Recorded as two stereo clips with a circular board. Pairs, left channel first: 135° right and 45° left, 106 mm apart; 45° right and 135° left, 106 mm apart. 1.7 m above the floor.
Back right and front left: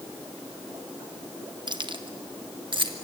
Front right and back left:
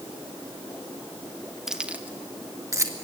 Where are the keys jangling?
50° left, 1.0 m; by 2.9 s 80° left, 1.8 m.